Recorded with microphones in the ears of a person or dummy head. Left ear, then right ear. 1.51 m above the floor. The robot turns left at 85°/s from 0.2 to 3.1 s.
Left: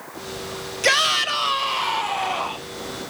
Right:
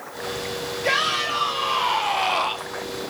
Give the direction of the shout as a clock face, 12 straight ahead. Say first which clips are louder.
Left 4 dB; 9 o'clock.